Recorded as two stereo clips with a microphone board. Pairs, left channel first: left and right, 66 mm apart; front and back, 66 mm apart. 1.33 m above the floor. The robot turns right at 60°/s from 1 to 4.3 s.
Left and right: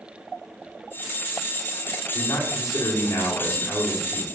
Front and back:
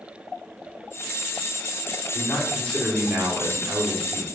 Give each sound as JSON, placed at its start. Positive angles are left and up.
{"t": 2.1, "sound": "a man speaking", "azimuth_deg": 45, "distance_m": 1.5}